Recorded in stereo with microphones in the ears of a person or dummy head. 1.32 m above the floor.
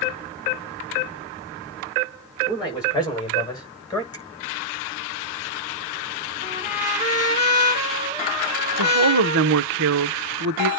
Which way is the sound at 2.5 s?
15° left (ahead or behind).